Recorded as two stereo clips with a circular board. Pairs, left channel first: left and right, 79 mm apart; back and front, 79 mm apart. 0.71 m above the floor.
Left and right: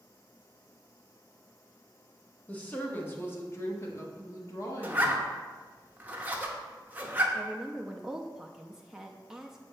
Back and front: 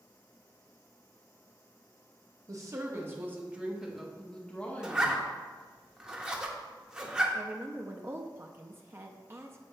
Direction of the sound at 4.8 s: 60° right.